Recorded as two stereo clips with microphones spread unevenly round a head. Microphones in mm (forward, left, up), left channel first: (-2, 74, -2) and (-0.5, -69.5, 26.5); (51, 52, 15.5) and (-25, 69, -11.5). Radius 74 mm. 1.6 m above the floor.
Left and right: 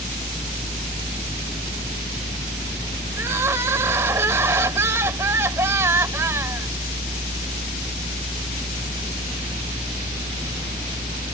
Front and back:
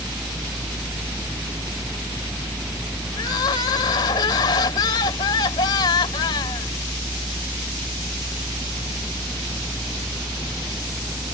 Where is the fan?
150° right.